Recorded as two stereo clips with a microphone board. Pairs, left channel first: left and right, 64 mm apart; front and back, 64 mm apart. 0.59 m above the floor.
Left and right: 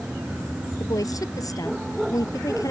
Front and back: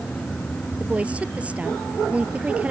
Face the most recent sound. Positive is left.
turn(degrees=110)